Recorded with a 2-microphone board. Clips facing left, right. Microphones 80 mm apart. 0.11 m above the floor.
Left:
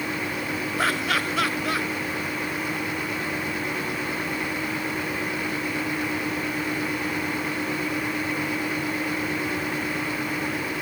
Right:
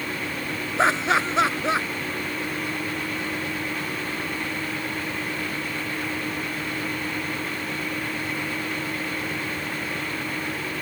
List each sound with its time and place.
0.8 s laughter: 25° right (ahead or behind)